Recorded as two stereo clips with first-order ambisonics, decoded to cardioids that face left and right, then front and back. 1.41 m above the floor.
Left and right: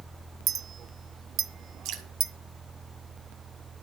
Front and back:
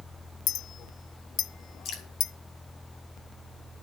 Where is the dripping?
50° right, 2 m.